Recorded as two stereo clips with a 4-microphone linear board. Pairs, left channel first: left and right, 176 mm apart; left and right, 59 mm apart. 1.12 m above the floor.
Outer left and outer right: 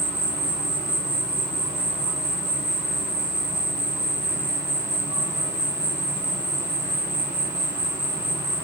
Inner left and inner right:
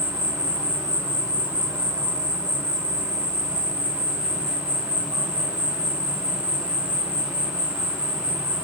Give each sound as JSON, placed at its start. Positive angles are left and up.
{"t": 0.0, "sound": "an insect", "side_deg": -75, "distance_m": 1.9}